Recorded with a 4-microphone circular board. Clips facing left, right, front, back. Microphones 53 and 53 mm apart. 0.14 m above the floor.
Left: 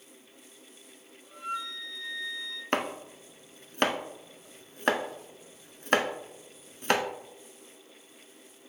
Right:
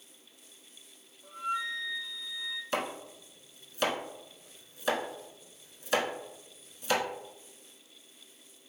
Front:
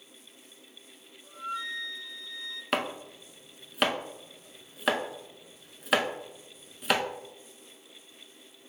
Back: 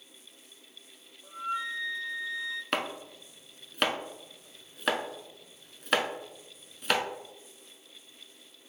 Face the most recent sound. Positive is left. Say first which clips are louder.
# left 5 dB, front 5 dB
turn(degrees=90)